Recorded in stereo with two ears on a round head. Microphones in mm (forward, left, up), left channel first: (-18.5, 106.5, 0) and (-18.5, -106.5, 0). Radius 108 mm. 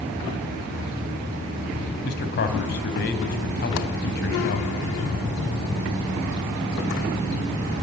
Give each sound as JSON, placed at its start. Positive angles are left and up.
{"t": 2.0, "sound": "a man speaking", "side_deg": 45, "distance_m": 3.5}